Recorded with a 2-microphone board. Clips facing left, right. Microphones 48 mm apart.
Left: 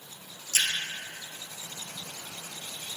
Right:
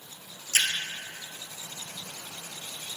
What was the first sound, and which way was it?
A splash, 40° right (ahead or behind).